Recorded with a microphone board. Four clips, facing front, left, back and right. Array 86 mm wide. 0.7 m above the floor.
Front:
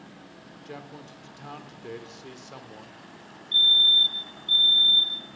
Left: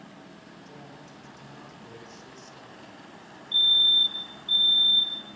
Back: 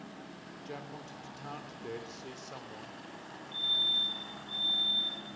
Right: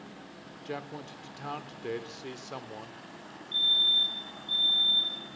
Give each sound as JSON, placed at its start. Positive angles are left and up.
{"t": 0.7, "sound": "a man speaking", "azimuth_deg": -85, "distance_m": 2.5}
{"t": 3.5, "sound": "a fire alarm", "azimuth_deg": 20, "distance_m": 3.0}